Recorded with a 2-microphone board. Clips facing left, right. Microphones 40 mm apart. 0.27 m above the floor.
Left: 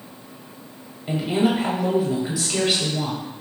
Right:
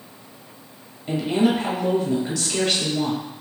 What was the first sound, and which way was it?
A woman speaking, 10° left (ahead or behind).